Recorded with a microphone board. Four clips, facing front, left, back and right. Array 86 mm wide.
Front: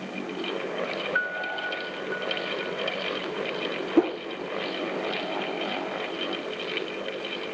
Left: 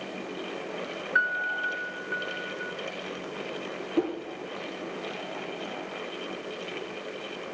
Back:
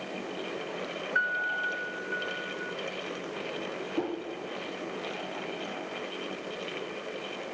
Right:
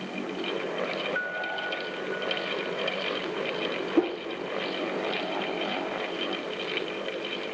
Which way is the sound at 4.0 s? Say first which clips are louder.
Right 2 dB, front 11 dB; 15° right.